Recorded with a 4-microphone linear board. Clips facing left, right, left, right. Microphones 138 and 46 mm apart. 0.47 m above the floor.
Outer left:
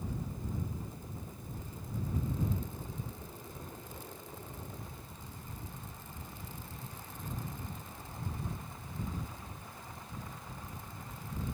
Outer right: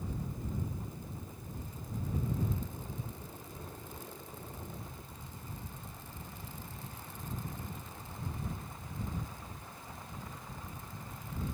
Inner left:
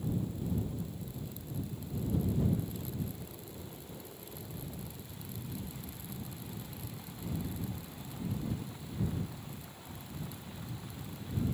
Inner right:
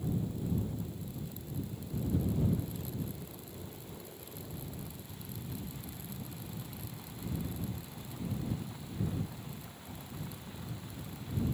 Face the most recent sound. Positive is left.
No sound to turn to.